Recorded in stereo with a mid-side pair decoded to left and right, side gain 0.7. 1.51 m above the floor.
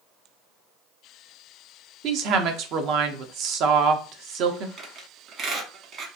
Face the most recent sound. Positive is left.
turn(degrees=-40)